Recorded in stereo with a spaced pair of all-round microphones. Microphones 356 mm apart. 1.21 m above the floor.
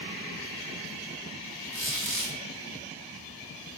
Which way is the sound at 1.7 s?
35° right (ahead or behind).